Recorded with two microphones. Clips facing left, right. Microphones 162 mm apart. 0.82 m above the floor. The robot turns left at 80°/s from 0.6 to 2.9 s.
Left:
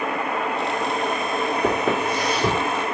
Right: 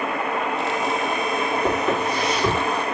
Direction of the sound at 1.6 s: 80° left.